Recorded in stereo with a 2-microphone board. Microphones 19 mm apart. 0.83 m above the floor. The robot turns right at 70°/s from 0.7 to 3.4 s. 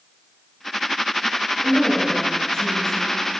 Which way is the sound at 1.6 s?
10° left.